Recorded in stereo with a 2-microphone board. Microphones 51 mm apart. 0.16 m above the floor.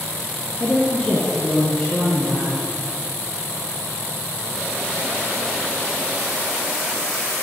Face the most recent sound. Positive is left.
turn(degrees=0)  # may be behind; listen again after turning